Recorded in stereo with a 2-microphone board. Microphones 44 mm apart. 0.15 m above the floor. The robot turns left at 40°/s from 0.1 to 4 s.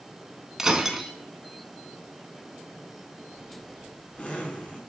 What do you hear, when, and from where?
0.6 s breaking glass: 10° right (ahead or behind), 0.6 m; by 1.1 s 5° right (ahead or behind), 0.6 m
3.3 s a zipper: 10° left (ahead or behind), 1.1 m; by 4.8 s 30° left (ahead or behind), 1.1 m